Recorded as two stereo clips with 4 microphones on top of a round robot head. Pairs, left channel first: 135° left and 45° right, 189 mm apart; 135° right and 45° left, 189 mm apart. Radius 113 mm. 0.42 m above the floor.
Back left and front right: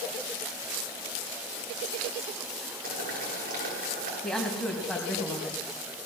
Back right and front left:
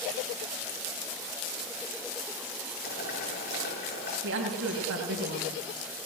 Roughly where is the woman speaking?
Ahead left.